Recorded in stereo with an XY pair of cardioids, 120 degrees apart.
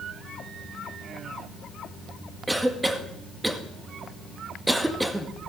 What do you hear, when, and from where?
2.5 s a cough: 10° right, 2 m